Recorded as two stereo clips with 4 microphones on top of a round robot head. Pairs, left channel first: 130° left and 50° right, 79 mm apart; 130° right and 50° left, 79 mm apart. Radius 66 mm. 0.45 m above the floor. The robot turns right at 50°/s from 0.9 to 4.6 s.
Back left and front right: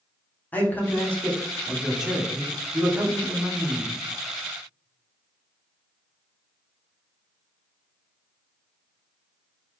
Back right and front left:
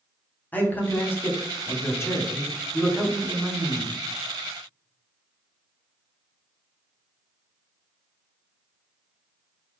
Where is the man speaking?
Straight behind, 0.9 m; by 3.9 s 30° right, 0.9 m.